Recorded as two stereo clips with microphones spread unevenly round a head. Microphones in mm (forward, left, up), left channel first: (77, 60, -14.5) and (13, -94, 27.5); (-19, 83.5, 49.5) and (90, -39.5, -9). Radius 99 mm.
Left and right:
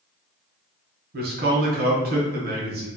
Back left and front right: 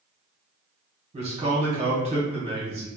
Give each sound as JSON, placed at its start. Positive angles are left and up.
{"t": 1.1, "sound": "a man speaking", "azimuth_deg": -80, "distance_m": 1.0}